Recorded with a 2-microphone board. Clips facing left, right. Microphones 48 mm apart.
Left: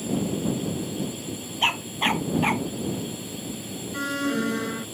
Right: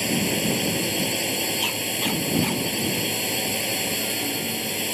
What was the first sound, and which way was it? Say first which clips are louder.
A drone: right 2 dB; 65° right (ahead or behind).